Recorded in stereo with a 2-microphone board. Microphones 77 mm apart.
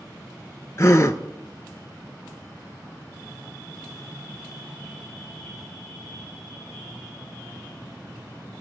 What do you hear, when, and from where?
0.8 s a gasp: 40° left (ahead or behind), 0.6 m